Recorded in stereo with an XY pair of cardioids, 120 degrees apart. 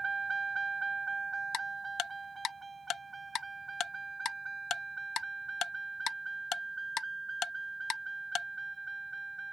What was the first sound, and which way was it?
A vehicle, 30° right.